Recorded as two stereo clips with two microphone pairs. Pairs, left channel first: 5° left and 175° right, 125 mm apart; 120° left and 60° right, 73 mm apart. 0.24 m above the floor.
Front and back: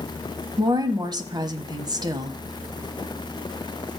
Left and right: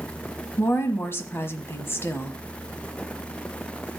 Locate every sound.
0.6 s a woman speaking: 155° left, 1.3 m